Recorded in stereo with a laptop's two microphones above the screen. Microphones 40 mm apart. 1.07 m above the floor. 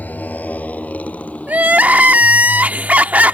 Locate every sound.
0.0 s a motorcycle: 45° left (ahead or behind); by 3.4 s 30° left (ahead or behind)
1.5 s crying: 40° right (ahead or behind)